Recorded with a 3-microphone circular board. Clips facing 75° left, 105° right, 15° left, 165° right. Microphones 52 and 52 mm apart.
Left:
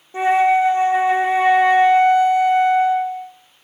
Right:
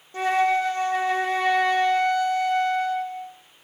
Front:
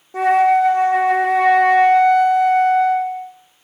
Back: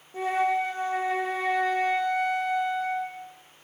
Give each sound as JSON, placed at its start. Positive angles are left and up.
{"t": 0.1, "sound": "a flute", "azimuth_deg": 5, "distance_m": 0.8}